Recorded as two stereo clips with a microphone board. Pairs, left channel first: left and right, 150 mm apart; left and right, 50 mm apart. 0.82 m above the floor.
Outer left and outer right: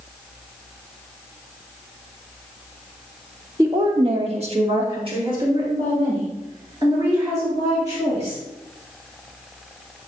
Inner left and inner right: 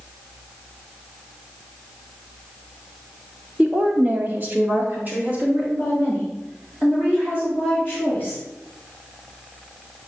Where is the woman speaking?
25° right (ahead or behind), 1.4 m; by 8.4 s 20° right (ahead or behind), 6 m.